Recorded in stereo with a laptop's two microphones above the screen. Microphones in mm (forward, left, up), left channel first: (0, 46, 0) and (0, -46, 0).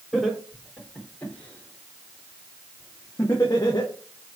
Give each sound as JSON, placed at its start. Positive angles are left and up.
{"t": 0.1, "sound": "laughter", "side_deg": 5, "distance_m": 4.5}